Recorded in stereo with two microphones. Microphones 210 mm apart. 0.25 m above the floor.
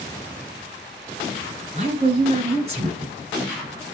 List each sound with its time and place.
1.8 s a woman speaking: 30° right (ahead or behind), 1.4 m